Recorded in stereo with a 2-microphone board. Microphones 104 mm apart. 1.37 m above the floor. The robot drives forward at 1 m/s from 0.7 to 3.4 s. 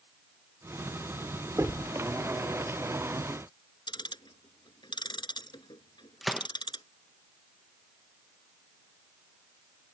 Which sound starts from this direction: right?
Knocking, at 1.6 s.